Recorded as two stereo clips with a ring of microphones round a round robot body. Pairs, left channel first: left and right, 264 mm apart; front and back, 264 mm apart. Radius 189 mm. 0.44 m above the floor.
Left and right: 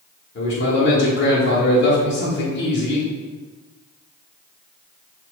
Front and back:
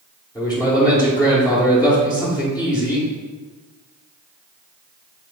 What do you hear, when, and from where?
0.3 s a man speaking: 70° left, 1.5 m